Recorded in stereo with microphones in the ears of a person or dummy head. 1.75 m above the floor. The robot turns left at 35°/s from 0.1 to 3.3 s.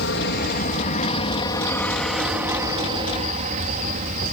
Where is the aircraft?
65° left (ahead or behind); by 4.3 s 45° right (ahead or behind).